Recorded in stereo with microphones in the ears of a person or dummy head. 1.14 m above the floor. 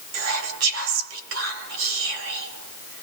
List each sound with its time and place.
0.1 s whispering: 70° right (ahead or behind), 2.5 m